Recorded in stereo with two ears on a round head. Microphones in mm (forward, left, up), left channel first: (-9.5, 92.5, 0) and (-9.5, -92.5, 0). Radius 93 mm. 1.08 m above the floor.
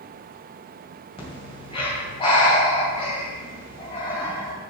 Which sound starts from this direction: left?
Breathing, at 1.2 s.